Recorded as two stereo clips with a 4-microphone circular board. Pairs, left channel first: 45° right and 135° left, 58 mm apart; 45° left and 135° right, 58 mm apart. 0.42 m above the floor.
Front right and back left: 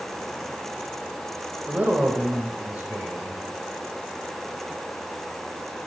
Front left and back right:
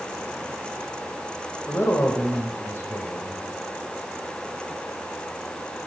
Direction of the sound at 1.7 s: 75° left.